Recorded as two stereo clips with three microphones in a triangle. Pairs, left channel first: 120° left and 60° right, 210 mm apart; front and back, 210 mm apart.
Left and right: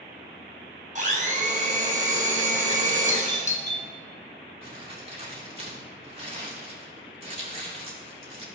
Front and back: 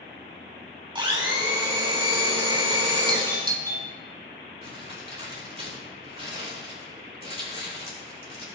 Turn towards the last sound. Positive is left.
turn(degrees=-120)